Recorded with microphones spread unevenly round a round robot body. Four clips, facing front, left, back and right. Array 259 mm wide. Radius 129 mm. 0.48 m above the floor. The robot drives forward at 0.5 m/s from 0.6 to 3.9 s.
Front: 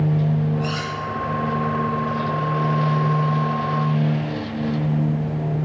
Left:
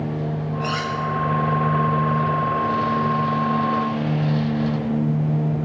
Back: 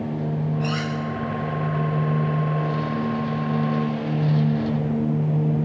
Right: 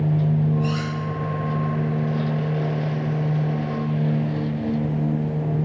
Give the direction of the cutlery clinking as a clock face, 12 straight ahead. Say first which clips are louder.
Left 1 dB, even; 9 o'clock.